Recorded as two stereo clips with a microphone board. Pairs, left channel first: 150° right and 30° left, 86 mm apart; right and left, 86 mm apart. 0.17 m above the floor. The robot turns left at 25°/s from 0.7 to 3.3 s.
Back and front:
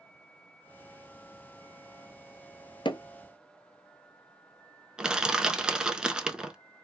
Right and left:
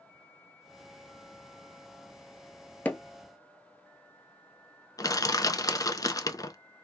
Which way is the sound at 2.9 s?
165° right.